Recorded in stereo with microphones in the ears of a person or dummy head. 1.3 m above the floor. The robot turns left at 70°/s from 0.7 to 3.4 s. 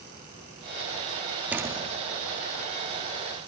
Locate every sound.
1.5 s a door slam: 5° right, 1.8 m; by 2.0 s 40° right, 1.8 m